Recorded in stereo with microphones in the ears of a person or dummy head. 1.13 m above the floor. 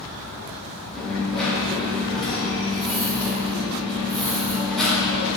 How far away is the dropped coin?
About 1.7 m.